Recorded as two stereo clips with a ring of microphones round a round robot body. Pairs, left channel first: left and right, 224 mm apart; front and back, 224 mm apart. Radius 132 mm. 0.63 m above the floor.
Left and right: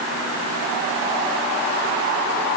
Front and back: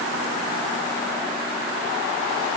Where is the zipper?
I don't hear a zipper.